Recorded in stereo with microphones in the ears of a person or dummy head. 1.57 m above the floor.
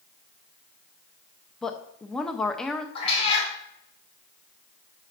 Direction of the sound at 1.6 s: 5° left (ahead or behind).